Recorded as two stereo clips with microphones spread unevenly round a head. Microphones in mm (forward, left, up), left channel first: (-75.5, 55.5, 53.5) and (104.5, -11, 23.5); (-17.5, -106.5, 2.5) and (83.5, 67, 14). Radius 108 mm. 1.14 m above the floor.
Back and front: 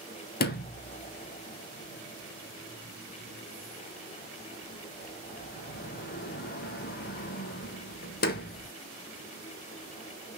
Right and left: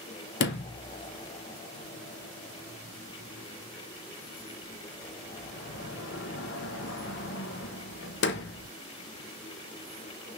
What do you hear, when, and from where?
0.4 s a sliding door: 155° right, 0.9 m